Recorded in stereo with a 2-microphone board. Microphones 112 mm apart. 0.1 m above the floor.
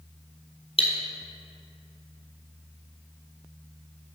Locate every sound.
0.8 s cutlery clinking: 55° left (ahead or behind), 1.3 m